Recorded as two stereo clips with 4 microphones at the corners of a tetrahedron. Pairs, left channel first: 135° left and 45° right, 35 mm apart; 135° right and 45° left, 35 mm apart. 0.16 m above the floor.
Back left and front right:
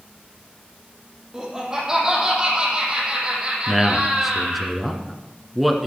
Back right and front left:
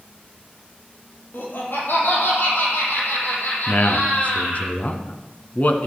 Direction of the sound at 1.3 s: 125° right.